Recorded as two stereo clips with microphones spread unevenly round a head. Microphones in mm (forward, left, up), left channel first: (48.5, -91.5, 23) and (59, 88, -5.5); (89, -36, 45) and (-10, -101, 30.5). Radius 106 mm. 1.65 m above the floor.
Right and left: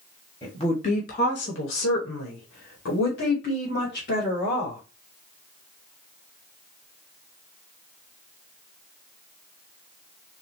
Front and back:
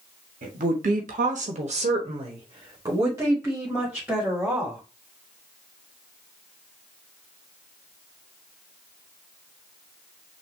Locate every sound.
0.4 s a woman speaking: 165° right, 1.3 m; by 4.8 s 65° right, 2.5 m